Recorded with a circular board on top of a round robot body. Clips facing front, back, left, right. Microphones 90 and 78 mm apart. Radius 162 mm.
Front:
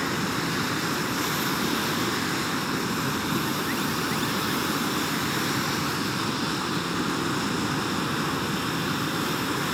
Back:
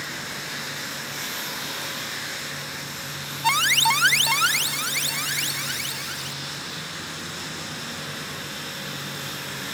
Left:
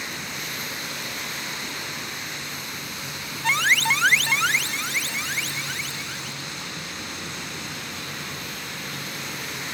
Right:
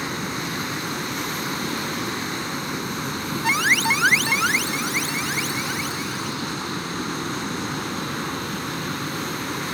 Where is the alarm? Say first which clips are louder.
Back 5 dB, even; 175° right.